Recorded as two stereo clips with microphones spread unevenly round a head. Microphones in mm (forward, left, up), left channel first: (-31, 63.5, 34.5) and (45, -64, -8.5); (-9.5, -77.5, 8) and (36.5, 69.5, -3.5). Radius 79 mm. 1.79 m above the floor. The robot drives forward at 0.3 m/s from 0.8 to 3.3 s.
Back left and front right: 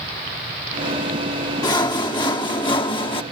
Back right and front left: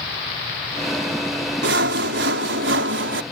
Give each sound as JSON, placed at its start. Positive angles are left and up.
{"t": 1.6, "sound": "sawing", "azimuth_deg": 60}